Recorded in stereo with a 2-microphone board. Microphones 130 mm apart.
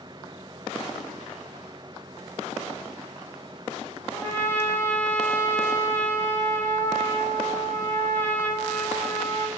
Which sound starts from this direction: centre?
A trumpet, at 4.1 s.